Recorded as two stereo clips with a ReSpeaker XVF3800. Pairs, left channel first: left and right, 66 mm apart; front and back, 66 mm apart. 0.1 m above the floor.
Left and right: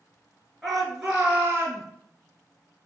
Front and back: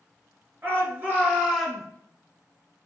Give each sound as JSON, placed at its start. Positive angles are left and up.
{"t": 0.6, "sound": "a shout", "azimuth_deg": 180, "distance_m": 1.3}